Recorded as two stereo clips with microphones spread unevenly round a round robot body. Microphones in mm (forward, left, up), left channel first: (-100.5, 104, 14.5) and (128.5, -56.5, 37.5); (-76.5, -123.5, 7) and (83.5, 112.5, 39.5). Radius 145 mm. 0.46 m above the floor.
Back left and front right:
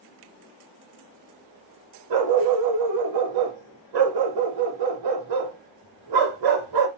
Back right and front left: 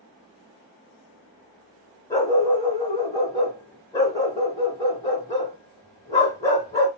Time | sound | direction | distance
2.1 | a dog barking | 45° right | 0.9 m